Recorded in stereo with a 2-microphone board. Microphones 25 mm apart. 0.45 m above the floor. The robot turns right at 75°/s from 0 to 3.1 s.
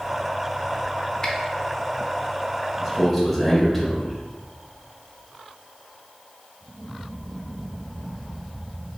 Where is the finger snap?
25° left (ahead or behind), 0.8 m; by 1.3 s 30° left (ahead or behind), 0.8 m.